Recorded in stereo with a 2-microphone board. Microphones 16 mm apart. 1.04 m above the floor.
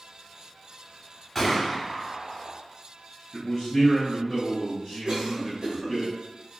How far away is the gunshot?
About 1.0 m.